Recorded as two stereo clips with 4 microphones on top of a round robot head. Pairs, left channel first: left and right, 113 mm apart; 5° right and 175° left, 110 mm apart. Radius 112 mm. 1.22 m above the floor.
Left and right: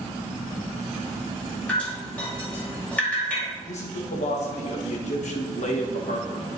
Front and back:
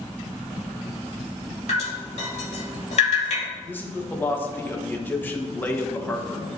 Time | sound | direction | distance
1.7 | dripping | 10° left | 2.5 m
3.7 | a man speaking | 70° left | 1.4 m